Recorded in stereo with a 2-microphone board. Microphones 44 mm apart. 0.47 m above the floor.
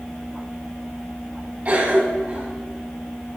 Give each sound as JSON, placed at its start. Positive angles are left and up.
{"t": 1.6, "sound": "a cough", "side_deg": -35, "distance_m": 1.9}